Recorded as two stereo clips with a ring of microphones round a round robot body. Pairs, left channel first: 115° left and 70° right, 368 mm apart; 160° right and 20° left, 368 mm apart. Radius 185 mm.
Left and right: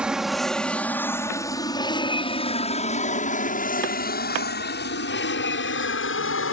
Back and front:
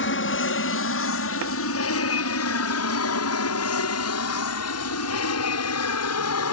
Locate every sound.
0.0 s an aircraft: 155° right; by 6.5 s 160° left